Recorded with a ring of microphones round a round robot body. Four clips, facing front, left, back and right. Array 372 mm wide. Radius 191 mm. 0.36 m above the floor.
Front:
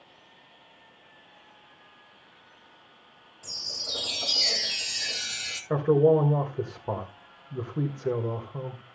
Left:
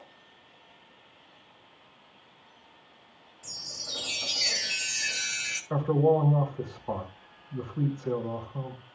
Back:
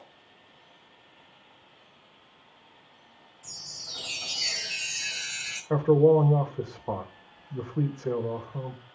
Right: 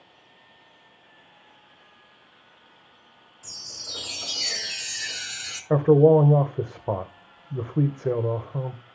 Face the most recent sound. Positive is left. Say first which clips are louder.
# right 8 dB, back 1 dB
turn(degrees=-80)